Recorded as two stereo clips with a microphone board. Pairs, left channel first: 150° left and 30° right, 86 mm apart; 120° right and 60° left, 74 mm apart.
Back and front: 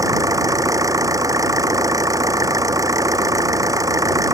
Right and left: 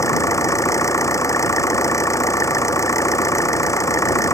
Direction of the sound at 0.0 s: 75° right.